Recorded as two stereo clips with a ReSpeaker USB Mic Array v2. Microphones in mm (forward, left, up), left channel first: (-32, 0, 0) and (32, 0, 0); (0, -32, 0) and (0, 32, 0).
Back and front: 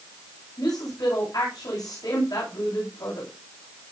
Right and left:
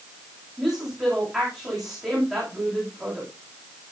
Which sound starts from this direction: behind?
A woman speaking, at 0.6 s.